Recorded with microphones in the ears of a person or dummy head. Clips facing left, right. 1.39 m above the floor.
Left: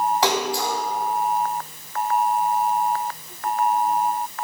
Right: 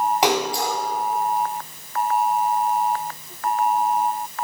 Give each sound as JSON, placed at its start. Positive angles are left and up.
{"t": 0.2, "sound": "a splash", "side_deg": -20, "distance_m": 3.5}